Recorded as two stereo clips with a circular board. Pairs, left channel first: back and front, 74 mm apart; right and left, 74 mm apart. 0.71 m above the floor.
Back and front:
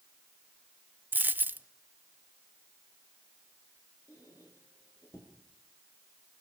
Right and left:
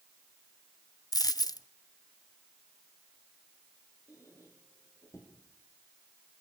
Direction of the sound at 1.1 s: 65° right.